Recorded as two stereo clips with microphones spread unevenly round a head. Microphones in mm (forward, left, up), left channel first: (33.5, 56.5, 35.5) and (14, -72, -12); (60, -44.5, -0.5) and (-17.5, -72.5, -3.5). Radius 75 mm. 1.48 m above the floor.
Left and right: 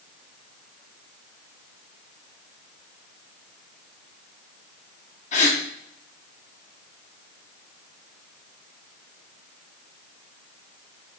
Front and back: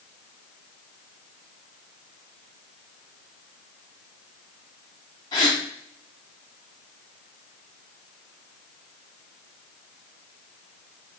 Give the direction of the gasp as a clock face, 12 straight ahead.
10 o'clock.